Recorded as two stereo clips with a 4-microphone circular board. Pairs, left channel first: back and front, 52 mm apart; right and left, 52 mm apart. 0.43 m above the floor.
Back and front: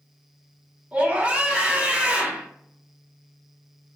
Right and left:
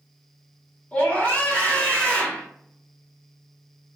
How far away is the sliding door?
I don't hear a sliding door.